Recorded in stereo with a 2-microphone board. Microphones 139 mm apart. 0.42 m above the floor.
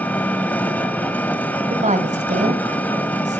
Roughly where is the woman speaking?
Right.